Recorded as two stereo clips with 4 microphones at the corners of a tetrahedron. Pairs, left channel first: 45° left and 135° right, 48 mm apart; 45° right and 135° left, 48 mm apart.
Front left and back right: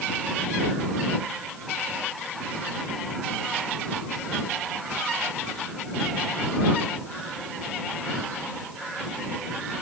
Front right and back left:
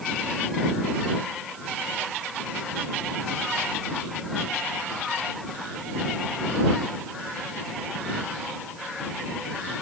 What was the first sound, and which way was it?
Only background noise.